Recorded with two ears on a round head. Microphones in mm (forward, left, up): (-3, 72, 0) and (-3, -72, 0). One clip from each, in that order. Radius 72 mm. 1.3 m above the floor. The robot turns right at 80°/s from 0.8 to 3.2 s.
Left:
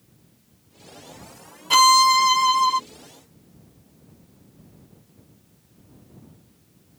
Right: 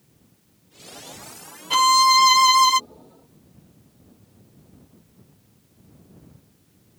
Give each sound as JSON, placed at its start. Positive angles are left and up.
{"t": 1.7, "sound": "a violin", "azimuth_deg": 160}